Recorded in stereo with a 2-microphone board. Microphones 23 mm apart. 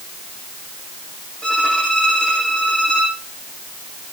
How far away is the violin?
About 9 m.